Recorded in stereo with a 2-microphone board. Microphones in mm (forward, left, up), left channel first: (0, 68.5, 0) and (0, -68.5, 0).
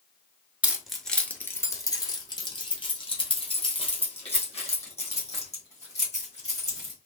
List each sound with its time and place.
0.6 s keys jangling: 10° right (ahead or behind), 0.8 m; by 6.9 s 55° left (ahead or behind), 4 m